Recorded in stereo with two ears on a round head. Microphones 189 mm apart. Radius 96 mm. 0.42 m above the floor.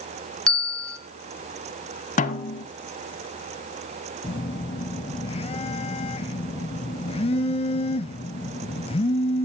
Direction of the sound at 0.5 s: 5° left (ahead or behind).